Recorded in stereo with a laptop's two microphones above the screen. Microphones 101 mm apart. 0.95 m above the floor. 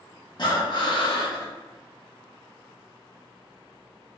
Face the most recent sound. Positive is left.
turn(degrees=45)  # may be behind; listen again after turning